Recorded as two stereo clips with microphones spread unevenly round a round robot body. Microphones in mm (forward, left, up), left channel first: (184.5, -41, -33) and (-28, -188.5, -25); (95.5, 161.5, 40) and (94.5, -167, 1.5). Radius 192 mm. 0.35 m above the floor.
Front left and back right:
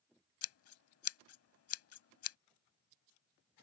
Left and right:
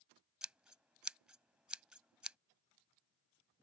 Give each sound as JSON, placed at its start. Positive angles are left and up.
{"t": 0.4, "sound": "scissors", "azimuth_deg": -5}